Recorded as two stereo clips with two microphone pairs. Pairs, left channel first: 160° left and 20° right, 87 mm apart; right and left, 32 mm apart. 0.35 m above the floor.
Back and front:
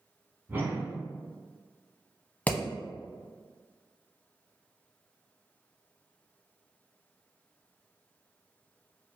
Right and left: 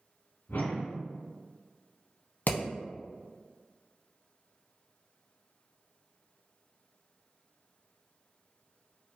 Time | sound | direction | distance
0.5 | a whoosh | 80° right | 0.8 m
2.5 | hammering | 125° right | 0.7 m